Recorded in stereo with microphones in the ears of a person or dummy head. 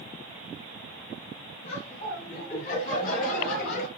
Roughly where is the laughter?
Left.